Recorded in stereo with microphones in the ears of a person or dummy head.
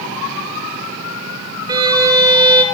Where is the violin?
25° right (ahead or behind), 0.9 m.